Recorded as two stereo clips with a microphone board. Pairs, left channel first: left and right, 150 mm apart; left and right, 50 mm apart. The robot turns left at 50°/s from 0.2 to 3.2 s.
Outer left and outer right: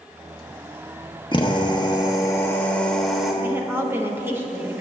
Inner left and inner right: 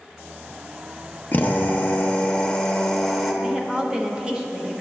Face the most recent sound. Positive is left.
turn(degrees=-15)  # may be behind; listen again after turning